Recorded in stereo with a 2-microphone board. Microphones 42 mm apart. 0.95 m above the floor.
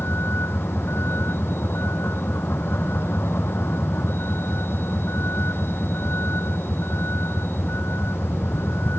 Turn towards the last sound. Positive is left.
turn(degrees=65)  # may be behind; listen again after turning